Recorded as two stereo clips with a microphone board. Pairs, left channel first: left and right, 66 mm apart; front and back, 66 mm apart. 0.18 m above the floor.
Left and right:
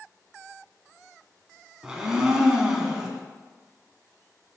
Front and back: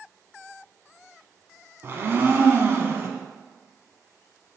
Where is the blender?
165° right, 0.5 m.